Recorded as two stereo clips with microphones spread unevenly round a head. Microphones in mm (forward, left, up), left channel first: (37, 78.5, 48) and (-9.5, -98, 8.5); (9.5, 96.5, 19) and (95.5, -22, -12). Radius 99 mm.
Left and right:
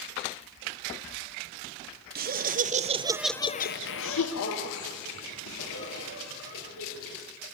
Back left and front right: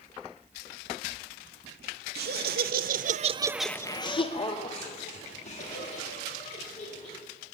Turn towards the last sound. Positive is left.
turn(degrees=85)